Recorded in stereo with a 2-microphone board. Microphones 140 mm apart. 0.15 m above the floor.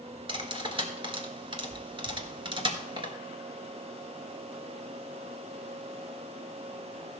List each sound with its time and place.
0.3 s cutlery clinking: 35° right (ahead or behind), 1.5 m